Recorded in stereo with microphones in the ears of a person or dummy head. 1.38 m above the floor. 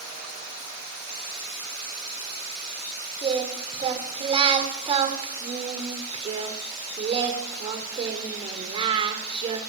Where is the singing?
25° right (ahead or behind), 2 m.